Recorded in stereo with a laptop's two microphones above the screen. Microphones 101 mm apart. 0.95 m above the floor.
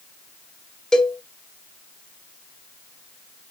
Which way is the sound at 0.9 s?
5° left (ahead or behind).